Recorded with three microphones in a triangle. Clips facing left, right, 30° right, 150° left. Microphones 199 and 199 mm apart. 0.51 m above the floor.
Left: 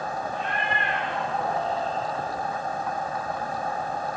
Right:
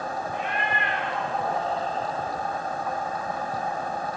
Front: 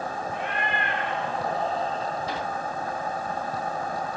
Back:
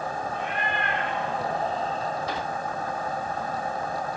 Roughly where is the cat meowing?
Ahead.